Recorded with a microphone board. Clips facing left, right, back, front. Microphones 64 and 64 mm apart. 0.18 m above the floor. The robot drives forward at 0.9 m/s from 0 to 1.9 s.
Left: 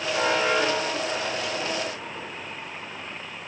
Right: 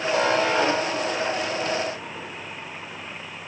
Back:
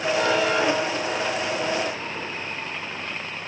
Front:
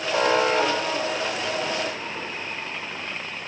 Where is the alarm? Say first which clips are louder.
Right 2 dB, front 2 dB; 50° right, 8 m; by 1.6 s 55° right, 7 m.